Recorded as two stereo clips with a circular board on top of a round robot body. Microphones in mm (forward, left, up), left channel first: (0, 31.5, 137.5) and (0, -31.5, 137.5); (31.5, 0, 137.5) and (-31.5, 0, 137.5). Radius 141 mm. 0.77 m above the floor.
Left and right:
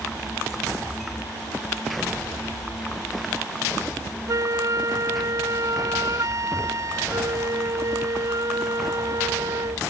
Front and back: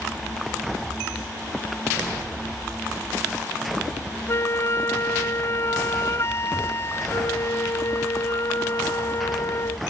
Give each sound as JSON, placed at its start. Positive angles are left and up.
{"t": 4.3, "sound": "a flute", "azimuth_deg": -50}